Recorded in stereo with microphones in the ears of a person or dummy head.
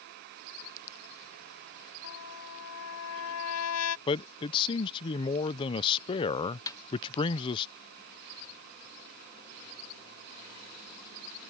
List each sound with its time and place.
2.0 s a trumpet: 90° left
4.1 s a man speaking: 25° left (ahead or behind)
6.7 s a snare drum: 20° left (ahead or behind)